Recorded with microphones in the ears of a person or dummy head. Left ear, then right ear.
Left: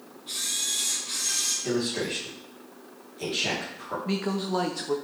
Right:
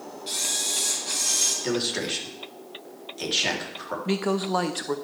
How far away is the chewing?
I don't hear chewing.